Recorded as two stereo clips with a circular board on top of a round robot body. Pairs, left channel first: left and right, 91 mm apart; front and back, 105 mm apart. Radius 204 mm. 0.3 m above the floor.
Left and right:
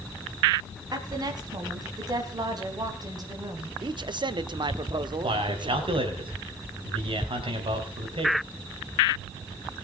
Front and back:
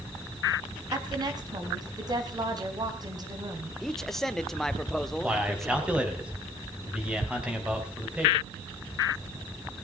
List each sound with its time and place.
0.9 s a woman speaking: 135° right, 4 m
3.8 s a man speaking: 85° right, 1.3 m
5.2 s a man speaking: 100° right, 5 m